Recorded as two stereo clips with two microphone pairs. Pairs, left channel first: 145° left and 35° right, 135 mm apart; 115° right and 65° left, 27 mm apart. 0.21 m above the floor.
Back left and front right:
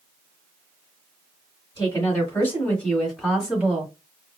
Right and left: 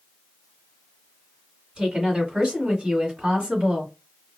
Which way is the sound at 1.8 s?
105° left.